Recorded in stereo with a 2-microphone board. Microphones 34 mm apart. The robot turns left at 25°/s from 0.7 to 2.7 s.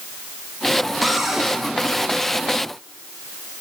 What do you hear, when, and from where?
1.0 s a cupboard door: centre (ahead or behind), 4.5 m; by 1.5 s 10° right (ahead or behind), 4.5 m